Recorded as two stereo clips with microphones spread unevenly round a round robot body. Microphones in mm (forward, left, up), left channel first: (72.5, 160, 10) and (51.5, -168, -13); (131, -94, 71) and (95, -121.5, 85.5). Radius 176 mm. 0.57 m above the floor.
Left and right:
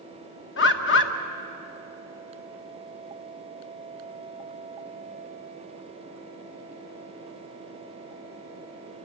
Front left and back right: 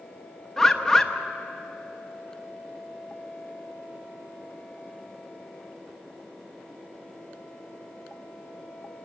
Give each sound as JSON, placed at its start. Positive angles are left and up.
{"t": 0.6, "sound": "a bird", "azimuth_deg": 80, "distance_m": 1.2}